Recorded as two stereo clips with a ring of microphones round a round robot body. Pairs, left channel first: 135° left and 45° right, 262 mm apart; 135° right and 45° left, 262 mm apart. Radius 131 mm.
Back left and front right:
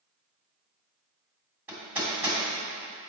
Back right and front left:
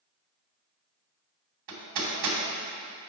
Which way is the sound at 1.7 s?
40° left.